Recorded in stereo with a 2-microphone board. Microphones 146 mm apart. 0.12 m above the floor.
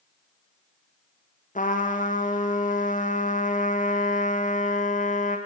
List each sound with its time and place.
1.6 s a trumpet: 65° left (ahead or behind), 3 m